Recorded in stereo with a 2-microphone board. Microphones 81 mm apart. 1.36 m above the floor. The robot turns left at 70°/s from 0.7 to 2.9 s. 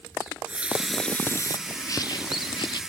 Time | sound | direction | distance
0.3 | a running tap | 165° right | ?
1.7 | a bird | 150° left | ?